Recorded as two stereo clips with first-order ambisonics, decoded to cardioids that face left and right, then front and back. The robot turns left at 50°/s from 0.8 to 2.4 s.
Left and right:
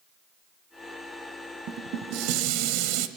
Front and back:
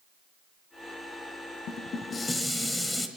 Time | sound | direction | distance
1.7 | dishes clattering | 45° right | 1.6 m